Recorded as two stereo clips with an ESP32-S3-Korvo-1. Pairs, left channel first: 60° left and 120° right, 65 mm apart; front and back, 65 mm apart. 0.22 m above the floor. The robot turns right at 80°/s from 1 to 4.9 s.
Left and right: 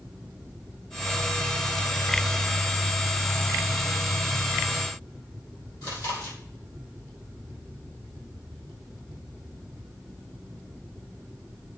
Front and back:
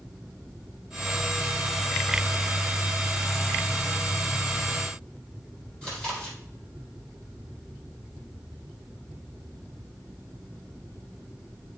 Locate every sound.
5.8 s chewing: 80° left, 3.5 m